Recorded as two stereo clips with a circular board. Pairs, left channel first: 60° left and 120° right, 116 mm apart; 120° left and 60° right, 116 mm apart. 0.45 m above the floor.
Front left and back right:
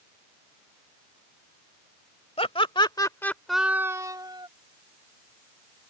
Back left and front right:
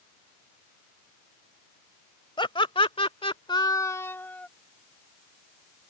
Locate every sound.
2.4 s laughter: 80° left; by 4.5 s 165° right